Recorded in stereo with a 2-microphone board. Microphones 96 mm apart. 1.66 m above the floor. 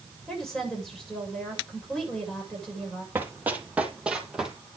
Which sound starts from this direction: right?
Running footsteps, at 3.1 s.